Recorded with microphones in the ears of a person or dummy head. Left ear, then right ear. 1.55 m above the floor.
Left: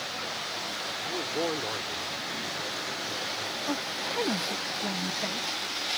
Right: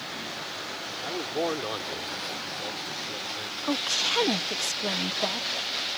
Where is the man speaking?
50° right (ahead or behind); by 3.5 s 45° right (ahead or behind).